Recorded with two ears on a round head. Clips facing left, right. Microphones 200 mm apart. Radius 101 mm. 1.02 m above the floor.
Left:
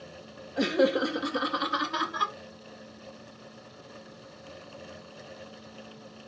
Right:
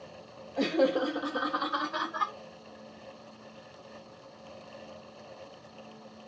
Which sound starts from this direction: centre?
Laughter, at 0.6 s.